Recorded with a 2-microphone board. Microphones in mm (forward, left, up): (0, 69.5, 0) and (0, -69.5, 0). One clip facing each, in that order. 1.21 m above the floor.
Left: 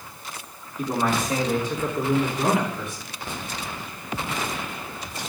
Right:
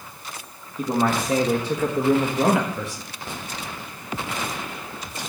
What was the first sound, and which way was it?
A man speaking, 45° right (ahead or behind).